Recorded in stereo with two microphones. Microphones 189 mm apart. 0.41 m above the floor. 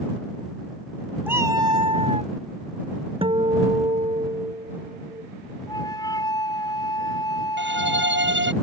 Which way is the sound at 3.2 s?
30° right (ahead or behind).